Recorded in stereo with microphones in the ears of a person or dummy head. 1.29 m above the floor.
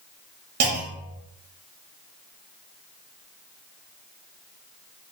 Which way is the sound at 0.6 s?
55° right (ahead or behind).